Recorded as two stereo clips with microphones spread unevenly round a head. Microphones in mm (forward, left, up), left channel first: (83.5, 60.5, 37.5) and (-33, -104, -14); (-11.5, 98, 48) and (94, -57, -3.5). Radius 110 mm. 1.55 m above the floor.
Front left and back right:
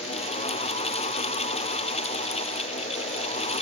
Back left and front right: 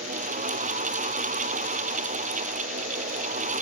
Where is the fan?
5° right.